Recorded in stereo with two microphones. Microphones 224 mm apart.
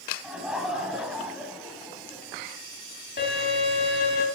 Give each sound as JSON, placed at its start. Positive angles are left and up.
{"t": 0.2, "sound": "laughter", "side_deg": -5, "distance_m": 1.9}
{"t": 3.2, "sound": "a violin", "side_deg": 55, "distance_m": 2.0}